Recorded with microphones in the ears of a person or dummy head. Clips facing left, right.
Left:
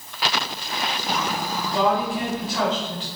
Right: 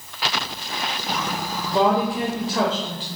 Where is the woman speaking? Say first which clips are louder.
Right 3 dB; 25° right (ahead or behind), 0.6 m.